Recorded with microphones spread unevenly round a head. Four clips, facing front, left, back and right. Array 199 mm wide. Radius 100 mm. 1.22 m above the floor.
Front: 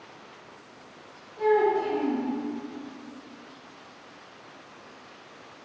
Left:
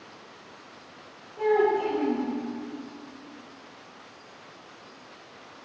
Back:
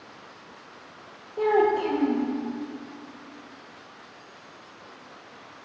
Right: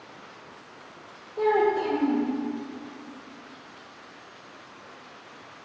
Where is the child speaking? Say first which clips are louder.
Even, back 1 dB; 155° right, 1.1 m.